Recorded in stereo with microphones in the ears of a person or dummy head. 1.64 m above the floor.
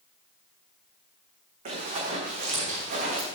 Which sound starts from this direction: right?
Running footsteps, at 1.6 s.